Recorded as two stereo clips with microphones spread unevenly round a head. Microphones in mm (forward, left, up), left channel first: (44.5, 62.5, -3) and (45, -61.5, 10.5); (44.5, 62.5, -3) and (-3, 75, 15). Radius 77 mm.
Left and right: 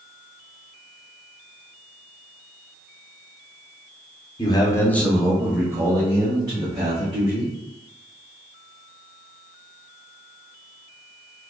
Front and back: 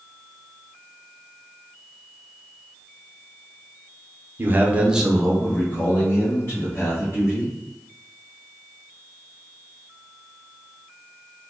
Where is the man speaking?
115° left, 0.8 m; by 7.5 s 35° right, 2 m.